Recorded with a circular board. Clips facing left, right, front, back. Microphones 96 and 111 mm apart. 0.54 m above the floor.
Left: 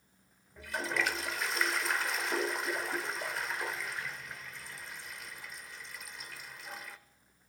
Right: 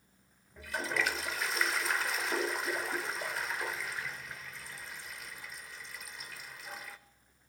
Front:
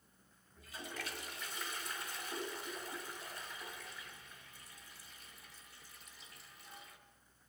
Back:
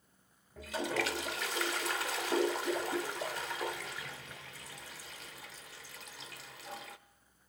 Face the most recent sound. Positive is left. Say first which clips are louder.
# even, back 13 dB
turn(degrees=180)